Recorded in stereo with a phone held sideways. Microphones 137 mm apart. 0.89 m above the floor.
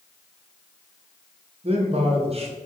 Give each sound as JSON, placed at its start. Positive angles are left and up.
{"t": 1.6, "sound": "a man speaking", "side_deg": -45, "distance_m": 0.7}